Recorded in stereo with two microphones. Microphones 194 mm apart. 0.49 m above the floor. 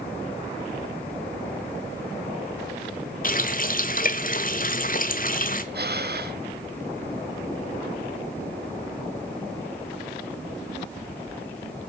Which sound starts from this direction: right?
Breathing, at 5.7 s.